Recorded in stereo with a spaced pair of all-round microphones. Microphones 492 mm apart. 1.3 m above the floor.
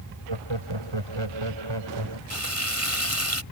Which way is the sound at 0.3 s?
65° right (ahead or behind).